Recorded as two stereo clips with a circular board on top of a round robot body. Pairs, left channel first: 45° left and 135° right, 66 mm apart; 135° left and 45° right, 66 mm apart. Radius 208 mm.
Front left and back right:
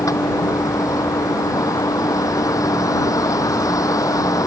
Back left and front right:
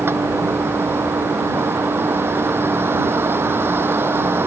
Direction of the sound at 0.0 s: 10° left.